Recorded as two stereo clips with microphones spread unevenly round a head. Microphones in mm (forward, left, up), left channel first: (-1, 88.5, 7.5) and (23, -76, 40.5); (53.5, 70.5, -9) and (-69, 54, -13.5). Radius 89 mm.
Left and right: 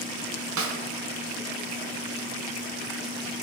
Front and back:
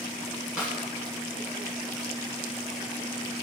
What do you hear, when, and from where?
0.6 s a snare drum: 90° right, 1.2 m